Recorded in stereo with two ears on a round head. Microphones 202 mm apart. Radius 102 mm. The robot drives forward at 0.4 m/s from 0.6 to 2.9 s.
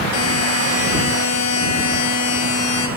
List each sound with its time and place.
0.1 s a buzzer: 85° left, 6.5 m; by 2.9 s 80° left, 6.5 m